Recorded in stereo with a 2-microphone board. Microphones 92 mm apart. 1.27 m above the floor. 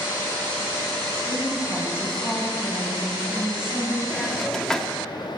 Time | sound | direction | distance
1.3 | a woman speaking | 25° left (ahead or behind) | 7.5 m
4.1 | a hiss | 5° left (ahead or behind) | 1.5 m